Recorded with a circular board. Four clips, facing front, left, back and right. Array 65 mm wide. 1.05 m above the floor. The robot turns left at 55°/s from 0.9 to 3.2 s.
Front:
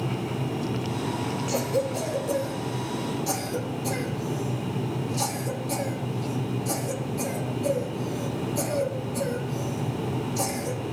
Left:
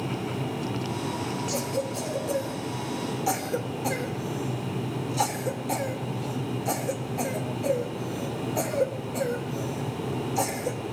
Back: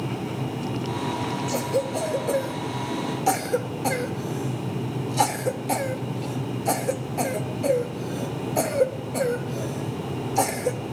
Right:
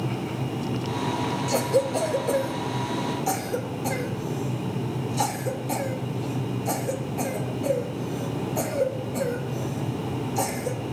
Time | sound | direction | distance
1.5 | a cough | 90° right | 1.5 m